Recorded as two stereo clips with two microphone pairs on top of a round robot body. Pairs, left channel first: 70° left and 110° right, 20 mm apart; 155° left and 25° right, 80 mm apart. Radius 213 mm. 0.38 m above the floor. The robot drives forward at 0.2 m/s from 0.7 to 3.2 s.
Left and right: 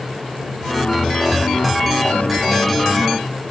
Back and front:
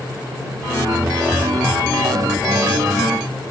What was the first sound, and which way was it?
Only background noise.